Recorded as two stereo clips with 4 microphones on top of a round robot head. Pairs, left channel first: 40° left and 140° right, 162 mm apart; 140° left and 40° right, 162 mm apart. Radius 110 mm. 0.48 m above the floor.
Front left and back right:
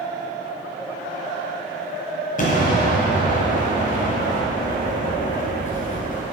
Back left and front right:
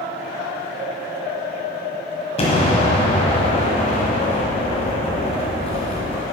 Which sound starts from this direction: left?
An explosion, at 2.4 s.